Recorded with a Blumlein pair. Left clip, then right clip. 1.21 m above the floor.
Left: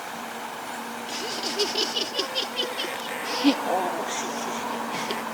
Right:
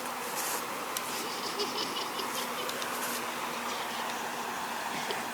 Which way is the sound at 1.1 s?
25° left.